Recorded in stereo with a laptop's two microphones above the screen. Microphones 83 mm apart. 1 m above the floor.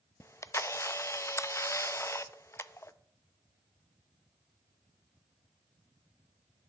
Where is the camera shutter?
35° left (ahead or behind), 0.6 m.